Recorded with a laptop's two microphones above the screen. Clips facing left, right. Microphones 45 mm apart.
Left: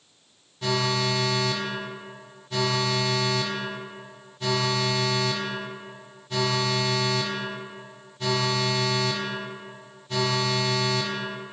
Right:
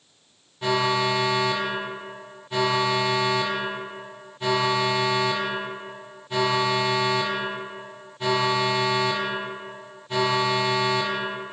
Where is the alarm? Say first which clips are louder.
Right 3 dB; 15° right (ahead or behind), 0.9 m.